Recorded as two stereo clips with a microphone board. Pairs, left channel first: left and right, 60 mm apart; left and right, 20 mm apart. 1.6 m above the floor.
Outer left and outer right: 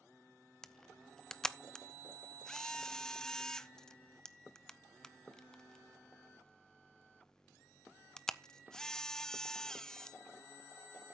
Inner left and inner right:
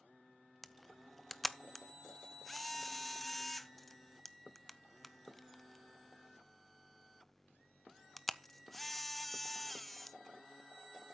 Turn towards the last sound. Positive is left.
turn(degrees=10)  # may be behind; listen again after turning